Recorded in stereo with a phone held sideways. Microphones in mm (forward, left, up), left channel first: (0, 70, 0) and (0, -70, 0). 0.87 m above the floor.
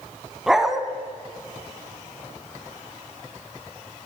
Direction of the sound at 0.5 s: Centre (ahead or behind).